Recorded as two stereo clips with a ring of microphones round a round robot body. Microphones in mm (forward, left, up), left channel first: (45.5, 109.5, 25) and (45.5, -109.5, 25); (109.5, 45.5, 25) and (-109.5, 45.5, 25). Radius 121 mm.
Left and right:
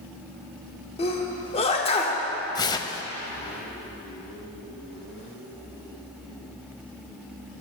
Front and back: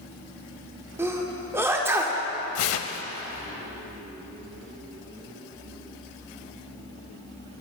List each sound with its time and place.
1.0 s a sneeze: 115° left, 0.8 m
2.5 s tearing paper: 15° left, 0.5 m